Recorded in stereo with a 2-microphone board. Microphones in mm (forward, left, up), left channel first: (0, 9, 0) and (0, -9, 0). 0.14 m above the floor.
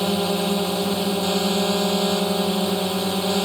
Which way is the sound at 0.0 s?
5° left (ahead or behind).